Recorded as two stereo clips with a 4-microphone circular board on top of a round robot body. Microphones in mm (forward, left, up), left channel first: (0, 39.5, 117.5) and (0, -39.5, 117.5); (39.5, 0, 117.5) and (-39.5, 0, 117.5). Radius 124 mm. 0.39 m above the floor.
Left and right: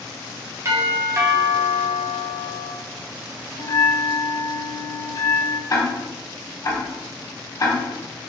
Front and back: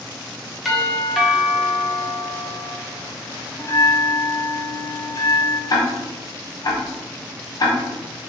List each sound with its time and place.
0.7 s a doorbell: 90° right, 1.5 m
3.6 s a bell: 45° left, 0.7 m
5.7 s ticking: 40° left, 1.0 m